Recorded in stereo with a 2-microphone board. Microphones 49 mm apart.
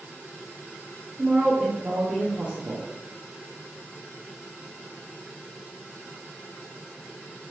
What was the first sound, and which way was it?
A woman speaking, 25° right (ahead or behind).